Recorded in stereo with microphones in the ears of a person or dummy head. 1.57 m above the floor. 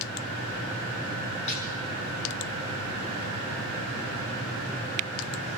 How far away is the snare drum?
About 8.5 m.